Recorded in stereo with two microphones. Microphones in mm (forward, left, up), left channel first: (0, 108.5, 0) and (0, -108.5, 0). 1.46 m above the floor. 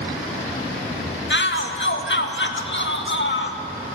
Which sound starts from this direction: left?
A shout, at 1.3 s.